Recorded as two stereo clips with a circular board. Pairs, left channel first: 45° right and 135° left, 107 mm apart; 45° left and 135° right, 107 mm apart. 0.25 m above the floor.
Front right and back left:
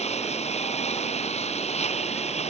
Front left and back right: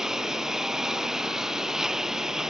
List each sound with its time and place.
0.0 s a lawn mower: 50° right